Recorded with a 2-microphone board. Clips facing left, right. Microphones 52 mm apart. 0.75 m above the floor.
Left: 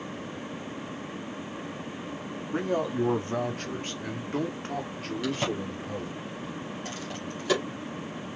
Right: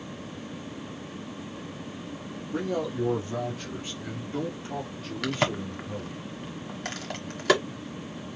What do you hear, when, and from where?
2.5 s a man speaking: 35° left (ahead or behind), 1.3 m; by 6.2 s 55° left (ahead or behind), 2.5 m
5.2 s a crack: 70° right (ahead or behind), 1.5 m